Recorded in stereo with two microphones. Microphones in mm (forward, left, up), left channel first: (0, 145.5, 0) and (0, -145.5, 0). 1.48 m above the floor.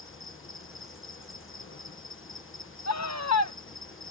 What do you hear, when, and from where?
0.0 s an insect: 45° left (ahead or behind)
2.9 s a scream: 65° left (ahead or behind)